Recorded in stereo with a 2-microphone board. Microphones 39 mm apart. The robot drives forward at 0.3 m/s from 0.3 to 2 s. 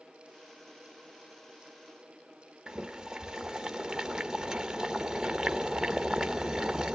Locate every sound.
2.7 s boiling: 20° right (ahead or behind), 0.8 m